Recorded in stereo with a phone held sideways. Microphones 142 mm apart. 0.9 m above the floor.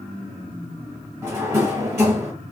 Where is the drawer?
20° right (ahead or behind), 1.4 m.